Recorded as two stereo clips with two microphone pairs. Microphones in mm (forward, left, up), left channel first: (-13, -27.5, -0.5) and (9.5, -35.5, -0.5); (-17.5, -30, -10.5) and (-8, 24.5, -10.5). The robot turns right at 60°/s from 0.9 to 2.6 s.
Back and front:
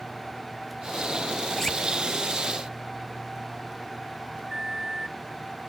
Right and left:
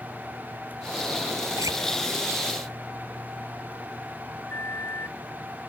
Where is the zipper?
80° left; by 1.7 s 90° left.